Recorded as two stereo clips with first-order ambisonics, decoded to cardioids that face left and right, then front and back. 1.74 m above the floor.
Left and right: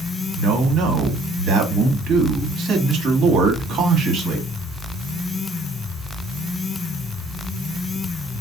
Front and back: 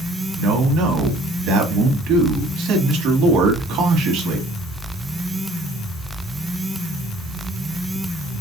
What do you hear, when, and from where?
0.4 s a man speaking: 145° right, 1.3 m